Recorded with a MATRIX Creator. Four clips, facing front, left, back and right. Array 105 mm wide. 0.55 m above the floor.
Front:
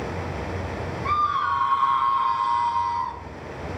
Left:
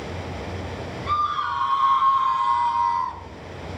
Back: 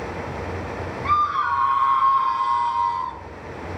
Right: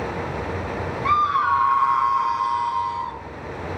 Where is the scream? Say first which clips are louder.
Right 5 dB, back 2 dB; 105° right, 1.5 m; by 3.2 s 65° left, 1.0 m.